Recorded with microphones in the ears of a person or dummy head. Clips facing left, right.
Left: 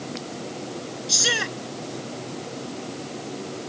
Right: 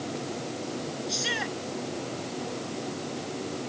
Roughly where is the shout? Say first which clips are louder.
Left 3 dB; left.